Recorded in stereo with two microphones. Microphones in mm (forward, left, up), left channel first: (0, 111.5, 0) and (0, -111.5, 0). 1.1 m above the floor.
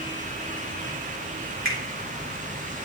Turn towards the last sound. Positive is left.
turn(degrees=65)  # may be behind; listen again after turning